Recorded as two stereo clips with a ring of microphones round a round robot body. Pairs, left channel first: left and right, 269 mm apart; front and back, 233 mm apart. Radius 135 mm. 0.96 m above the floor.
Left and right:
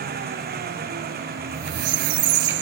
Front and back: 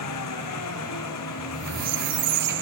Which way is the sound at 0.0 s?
30° right.